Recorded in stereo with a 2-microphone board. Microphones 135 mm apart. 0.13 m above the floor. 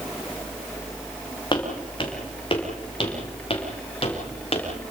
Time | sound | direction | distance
1.5 | footsteps | 35° left (ahead or behind) | 5 m